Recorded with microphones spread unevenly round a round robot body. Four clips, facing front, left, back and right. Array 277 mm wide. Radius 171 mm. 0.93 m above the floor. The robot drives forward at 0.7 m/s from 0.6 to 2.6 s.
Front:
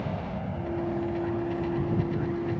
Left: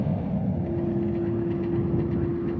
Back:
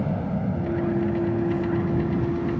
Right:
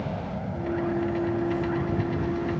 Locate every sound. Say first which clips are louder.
0.0 s an insect: left 4 dB, back 6 dB; 140° left; by 2.6 s 160° left